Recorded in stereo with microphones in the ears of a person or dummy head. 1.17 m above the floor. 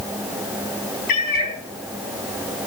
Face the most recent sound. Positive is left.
turn(degrees=50)  # may be behind; listen again after turning